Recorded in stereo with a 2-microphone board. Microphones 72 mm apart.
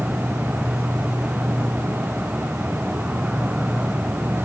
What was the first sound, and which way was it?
An insect, 10° right (ahead or behind).